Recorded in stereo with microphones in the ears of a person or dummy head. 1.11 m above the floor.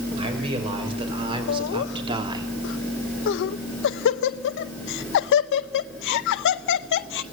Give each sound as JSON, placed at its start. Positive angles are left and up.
{"t": 0.2, "sound": "a man speaking", "side_deg": -30, "distance_m": 5.5}
{"t": 1.5, "sound": "laughter", "side_deg": 65, "distance_m": 0.7}